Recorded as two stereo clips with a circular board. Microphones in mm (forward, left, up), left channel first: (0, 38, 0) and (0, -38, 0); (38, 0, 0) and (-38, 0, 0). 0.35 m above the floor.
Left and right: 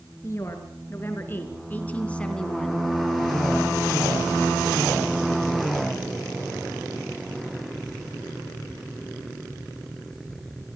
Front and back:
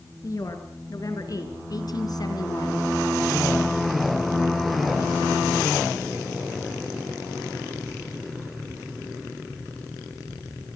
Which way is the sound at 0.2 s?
40° left.